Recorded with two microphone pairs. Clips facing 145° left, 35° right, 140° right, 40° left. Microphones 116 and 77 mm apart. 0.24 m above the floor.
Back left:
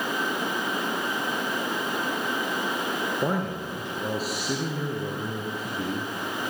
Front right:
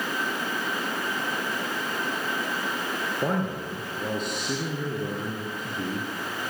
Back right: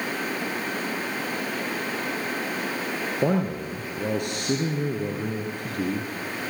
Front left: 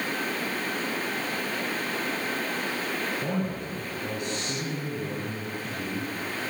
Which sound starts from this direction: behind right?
A man speaking, at 3.2 s.